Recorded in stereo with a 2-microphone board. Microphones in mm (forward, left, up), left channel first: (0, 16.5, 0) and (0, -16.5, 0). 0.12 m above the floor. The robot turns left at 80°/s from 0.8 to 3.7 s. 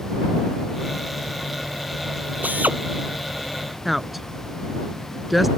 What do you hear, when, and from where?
2.4 s a drill: 60° right (ahead or behind)
3.9 s a woman speaking: 5° right (ahead or behind)